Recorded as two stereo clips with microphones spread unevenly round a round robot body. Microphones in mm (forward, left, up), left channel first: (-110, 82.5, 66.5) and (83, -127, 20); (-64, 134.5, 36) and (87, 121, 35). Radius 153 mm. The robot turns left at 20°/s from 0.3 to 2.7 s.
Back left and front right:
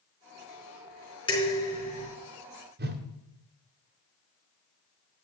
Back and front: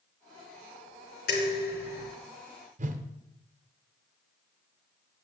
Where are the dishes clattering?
150° right, 3.5 m; by 2.1 s 170° right, 3.5 m.